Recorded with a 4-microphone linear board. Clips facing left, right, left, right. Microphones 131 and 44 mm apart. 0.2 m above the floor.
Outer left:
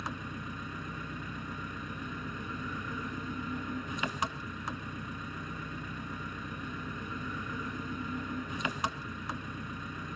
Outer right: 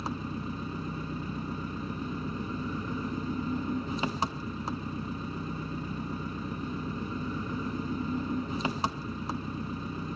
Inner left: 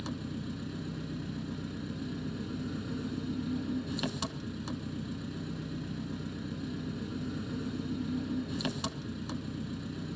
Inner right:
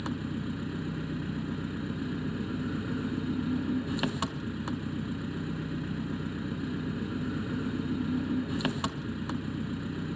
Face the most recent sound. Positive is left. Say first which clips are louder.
# outer right 5 dB, inner right 4 dB
turn(degrees=-30)  # may be behind; listen again after turning